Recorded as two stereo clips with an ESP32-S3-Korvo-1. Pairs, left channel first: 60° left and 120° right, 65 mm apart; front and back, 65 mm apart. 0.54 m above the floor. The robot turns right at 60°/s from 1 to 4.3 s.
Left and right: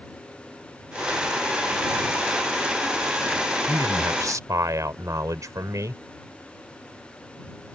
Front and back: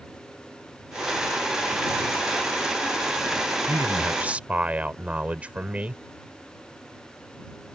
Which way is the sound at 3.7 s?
150° right.